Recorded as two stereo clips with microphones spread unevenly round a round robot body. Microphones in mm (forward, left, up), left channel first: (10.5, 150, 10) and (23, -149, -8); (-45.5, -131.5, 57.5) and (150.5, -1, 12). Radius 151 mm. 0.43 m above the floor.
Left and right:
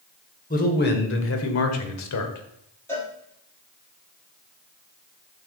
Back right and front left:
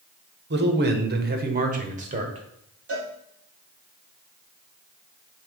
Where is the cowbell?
10° left, 5 m.